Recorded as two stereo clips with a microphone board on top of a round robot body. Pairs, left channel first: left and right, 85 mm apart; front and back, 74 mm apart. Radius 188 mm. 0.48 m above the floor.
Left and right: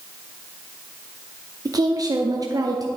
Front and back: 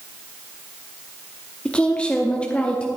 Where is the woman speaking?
70° right, 1.0 m.